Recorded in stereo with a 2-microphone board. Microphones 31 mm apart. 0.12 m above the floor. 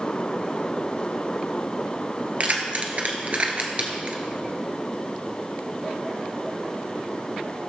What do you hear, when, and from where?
2.4 s keys jangling: 50° right (ahead or behind), 1.7 m; by 4.2 s 35° right (ahead or behind), 1.6 m